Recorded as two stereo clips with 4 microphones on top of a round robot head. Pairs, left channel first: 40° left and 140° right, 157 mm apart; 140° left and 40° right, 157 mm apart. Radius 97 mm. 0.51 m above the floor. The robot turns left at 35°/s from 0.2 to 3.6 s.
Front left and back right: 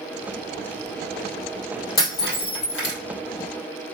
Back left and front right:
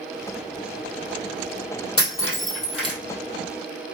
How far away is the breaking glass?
About 2.5 m.